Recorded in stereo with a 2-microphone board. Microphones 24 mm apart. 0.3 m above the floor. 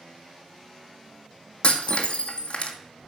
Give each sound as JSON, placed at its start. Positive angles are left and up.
{"t": 1.6, "sound": "breaking glass", "side_deg": 55, "distance_m": 1.3}